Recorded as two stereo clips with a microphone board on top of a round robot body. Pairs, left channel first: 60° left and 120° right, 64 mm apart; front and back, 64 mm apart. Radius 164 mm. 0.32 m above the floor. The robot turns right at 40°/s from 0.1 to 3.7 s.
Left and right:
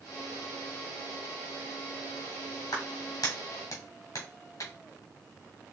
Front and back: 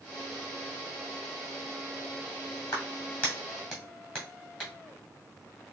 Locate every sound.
2.7 s a clap: 40° left, 2 m; by 4.7 s 80° left, 2 m